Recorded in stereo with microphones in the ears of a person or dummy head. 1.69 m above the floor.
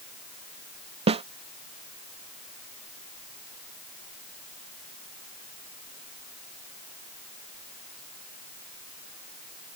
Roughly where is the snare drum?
Right.